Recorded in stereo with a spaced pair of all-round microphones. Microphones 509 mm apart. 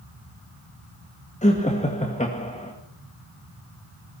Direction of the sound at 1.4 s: 15° left (ahead or behind).